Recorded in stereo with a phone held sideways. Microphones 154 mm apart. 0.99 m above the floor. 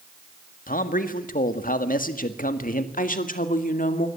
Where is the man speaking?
65° left (ahead or behind), 1.9 m.